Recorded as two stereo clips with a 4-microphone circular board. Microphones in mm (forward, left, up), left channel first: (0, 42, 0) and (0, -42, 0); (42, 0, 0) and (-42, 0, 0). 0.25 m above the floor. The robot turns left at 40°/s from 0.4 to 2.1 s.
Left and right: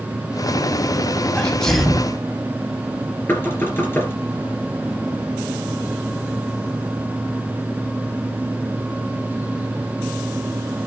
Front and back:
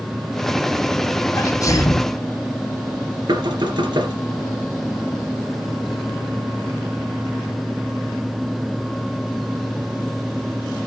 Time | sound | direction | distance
1.4 | a sneeze | 20° left | 2.0 m
3.3 | knocking | 155° left | 3 m